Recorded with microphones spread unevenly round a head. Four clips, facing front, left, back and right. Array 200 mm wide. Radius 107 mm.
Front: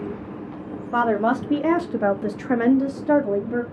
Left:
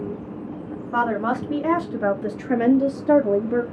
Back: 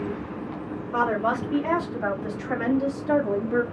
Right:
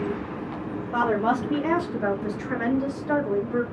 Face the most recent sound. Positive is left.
turn(degrees=85)